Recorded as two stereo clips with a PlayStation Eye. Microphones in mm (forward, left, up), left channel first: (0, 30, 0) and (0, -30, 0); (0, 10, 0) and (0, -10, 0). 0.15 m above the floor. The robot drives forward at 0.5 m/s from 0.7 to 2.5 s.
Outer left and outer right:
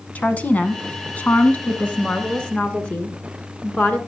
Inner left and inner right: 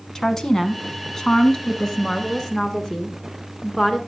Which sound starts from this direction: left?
A woman speaking, at 0.1 s.